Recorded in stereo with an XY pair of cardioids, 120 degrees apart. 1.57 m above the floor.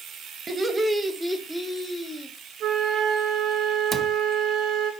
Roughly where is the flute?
Ahead right.